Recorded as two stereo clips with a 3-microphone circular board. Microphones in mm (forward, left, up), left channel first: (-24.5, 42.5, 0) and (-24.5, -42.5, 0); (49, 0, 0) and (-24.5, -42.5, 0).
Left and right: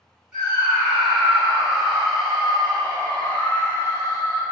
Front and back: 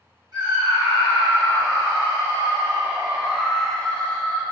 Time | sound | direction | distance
0.3 | a scream | 170° right | 1.9 m